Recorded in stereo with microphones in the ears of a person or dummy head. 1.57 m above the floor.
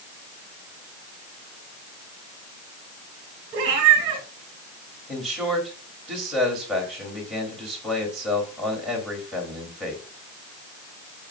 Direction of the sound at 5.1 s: Centre (ahead or behind).